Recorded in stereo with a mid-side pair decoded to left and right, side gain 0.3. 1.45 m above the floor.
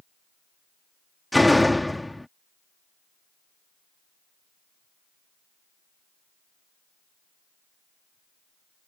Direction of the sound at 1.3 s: 10° left.